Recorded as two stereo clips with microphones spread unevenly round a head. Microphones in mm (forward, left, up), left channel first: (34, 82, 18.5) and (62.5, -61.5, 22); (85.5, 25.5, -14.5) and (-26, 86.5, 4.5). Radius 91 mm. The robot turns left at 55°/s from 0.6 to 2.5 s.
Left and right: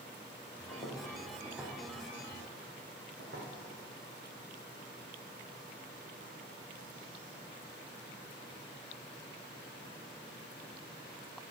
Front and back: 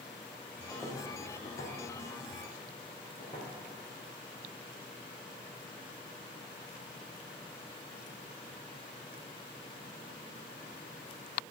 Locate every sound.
0.7 s footsteps: 55° left, 2.5 m; by 3.5 s 90° right, 3.5 m